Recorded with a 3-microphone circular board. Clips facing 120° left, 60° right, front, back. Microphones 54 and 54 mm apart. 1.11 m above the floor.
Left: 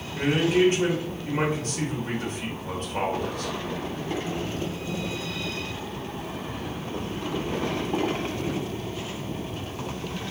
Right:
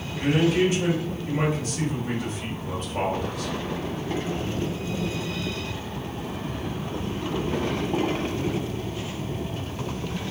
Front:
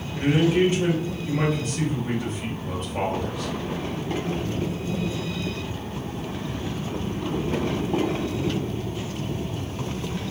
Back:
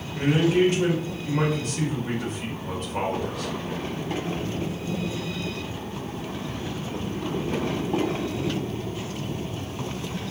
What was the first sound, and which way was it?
A man speaking, 165° left.